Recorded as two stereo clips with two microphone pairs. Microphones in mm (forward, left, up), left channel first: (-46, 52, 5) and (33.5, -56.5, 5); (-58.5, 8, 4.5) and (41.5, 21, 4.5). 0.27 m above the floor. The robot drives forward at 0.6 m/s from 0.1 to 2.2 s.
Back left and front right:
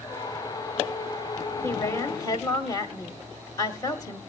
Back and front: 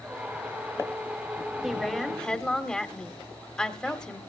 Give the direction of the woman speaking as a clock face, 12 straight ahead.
9 o'clock.